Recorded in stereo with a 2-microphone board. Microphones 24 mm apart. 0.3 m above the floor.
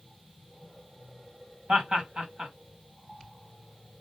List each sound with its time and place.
1.7 s laughter: 50° right (ahead or behind), 2 m